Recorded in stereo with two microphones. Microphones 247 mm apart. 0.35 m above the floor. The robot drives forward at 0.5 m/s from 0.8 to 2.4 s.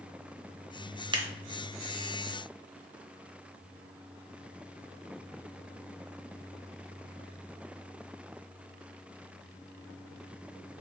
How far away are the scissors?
About 0.9 m.